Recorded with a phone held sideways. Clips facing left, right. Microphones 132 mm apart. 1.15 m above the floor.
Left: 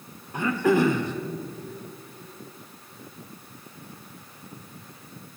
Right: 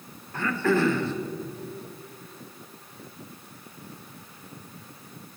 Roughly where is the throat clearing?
Centre.